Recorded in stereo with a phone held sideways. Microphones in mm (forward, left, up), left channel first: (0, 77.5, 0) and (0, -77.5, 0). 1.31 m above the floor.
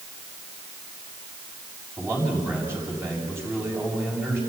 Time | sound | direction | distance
2.0 | a man speaking | 15° right (ahead or behind) | 7 m